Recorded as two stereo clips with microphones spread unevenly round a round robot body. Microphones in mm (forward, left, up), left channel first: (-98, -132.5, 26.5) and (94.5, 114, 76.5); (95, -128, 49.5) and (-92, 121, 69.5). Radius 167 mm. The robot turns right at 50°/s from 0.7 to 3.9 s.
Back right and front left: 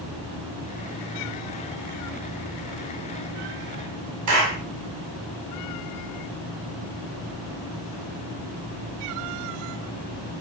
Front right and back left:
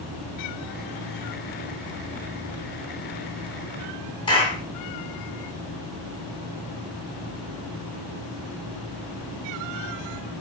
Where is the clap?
20° left, 3 m.